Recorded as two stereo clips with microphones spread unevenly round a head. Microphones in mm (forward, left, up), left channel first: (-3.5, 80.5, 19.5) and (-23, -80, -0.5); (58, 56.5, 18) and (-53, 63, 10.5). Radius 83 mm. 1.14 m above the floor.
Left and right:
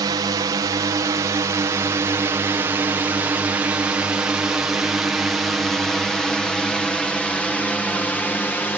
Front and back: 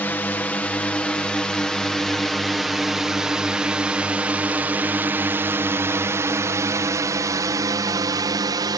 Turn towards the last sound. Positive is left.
turn(degrees=165)